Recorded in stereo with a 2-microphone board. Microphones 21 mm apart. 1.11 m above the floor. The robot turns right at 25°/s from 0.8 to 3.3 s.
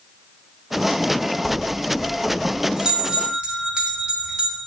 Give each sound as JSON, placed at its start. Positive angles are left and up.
{"t": 1.4, "sound": "a bell", "azimuth_deg": 175, "distance_m": 2.5}